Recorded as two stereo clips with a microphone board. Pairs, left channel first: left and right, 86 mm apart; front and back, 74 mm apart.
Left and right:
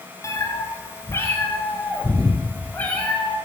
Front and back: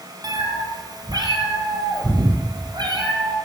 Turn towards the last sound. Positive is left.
turn(degrees=165)